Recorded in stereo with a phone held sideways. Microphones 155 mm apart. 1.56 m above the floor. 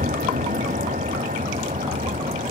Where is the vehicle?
60° right (ahead or behind); by 2.5 s 50° right (ahead or behind).